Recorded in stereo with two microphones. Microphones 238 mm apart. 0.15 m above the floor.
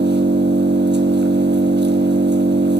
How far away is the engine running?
About 1.7 m.